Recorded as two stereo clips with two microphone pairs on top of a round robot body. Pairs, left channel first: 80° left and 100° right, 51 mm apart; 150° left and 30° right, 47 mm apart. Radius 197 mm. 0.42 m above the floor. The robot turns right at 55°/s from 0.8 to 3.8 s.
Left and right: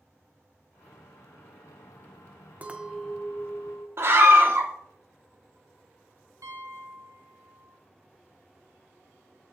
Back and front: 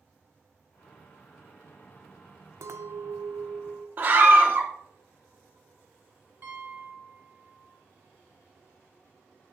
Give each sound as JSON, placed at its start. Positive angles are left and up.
{"t": 2.6, "sound": "a clink", "azimuth_deg": -40, "distance_m": 0.7}
{"t": 4.0, "sound": "a scream", "azimuth_deg": -80, "distance_m": 1.1}
{"t": 6.4, "sound": "a piano", "azimuth_deg": -90, "distance_m": 1.0}